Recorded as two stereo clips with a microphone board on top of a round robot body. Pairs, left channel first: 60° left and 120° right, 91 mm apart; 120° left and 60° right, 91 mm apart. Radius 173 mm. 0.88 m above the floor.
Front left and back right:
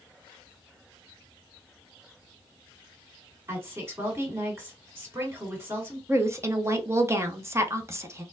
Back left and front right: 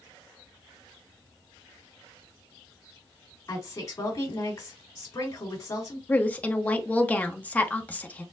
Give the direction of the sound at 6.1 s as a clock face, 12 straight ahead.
6 o'clock.